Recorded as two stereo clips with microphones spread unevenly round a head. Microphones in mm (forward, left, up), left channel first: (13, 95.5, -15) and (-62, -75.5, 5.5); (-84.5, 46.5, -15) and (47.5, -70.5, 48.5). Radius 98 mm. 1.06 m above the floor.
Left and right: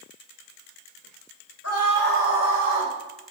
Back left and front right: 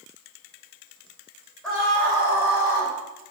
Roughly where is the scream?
Ahead left.